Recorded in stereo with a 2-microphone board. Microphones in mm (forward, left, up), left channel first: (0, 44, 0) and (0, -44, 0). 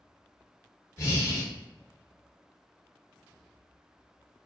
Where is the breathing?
30° left (ahead or behind), 1.0 m.